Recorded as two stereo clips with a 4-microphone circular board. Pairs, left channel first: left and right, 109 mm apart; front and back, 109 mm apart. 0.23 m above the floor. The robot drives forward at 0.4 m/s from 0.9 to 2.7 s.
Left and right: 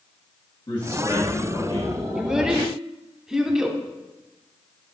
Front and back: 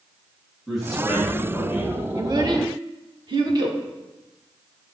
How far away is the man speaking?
About 2.0 m.